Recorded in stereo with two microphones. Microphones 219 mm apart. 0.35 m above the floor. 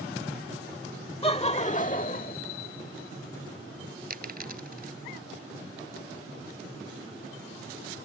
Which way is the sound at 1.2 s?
25° left (ahead or behind).